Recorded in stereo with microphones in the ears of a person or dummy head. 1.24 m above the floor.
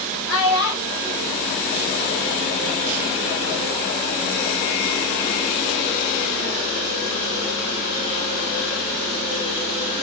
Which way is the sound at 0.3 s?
85° left.